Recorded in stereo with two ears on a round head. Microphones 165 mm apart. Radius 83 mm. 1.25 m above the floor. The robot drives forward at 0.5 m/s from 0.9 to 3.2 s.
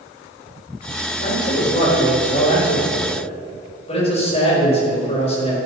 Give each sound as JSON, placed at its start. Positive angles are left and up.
{"t": 1.2, "sound": "a man speaking", "side_deg": 45, "distance_m": 4.0}